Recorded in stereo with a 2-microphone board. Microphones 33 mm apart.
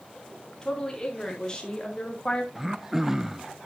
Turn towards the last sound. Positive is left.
turn(degrees=-10)  # may be behind; listen again after turning